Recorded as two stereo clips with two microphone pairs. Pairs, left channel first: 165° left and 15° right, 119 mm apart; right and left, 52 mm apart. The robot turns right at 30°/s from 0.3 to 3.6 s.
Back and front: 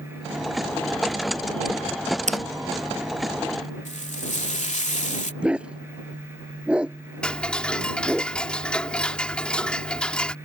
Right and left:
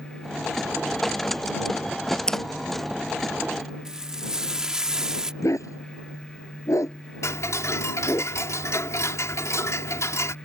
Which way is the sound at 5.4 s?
100° right.